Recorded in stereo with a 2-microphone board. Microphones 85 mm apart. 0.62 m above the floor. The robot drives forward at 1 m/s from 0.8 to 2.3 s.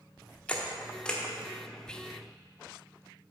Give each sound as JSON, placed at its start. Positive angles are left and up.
{"t": 0.5, "sound": "a camera shutter", "side_deg": 15, "distance_m": 0.9}
{"t": 1.9, "sound": "whispering", "side_deg": 10, "distance_m": 0.7}